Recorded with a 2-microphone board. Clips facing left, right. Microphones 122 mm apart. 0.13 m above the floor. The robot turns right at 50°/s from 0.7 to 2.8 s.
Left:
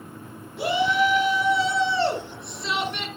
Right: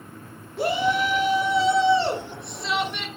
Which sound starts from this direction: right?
A shout, at 0.6 s.